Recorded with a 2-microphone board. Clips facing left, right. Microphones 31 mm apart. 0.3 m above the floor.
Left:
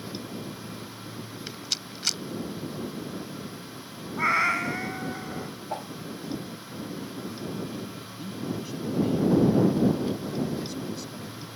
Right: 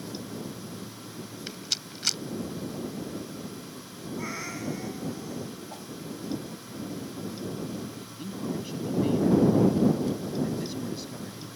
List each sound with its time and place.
1.5 s a rattle: centre (ahead or behind)
4.2 s a cat meowing: 65° left (ahead or behind)
5.7 s a whoosh: 45° left (ahead or behind)
8.0 s a man speaking: 15° right (ahead or behind)